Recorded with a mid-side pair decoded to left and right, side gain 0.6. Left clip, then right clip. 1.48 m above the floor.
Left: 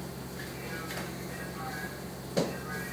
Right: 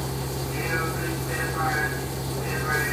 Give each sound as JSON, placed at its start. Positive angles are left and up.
{"t": 0.0, "sound": "a vehicle", "azimuth_deg": -60}